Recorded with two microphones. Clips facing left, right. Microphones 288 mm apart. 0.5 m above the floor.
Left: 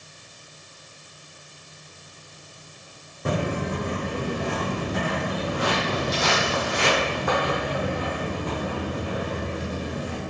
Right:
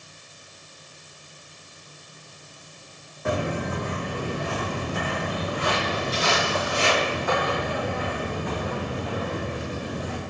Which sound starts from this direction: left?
Footsteps, at 3.2 s.